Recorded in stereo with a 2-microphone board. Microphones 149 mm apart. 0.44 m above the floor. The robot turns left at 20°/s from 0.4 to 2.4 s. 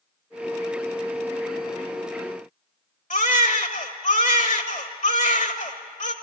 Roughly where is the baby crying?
Left.